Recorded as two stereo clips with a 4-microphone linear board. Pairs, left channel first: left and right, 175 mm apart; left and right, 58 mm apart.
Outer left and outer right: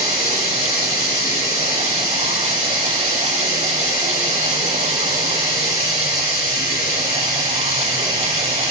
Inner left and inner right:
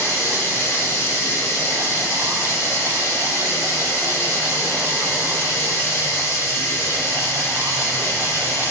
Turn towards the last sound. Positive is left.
turn(degrees=55)  # may be behind; listen again after turning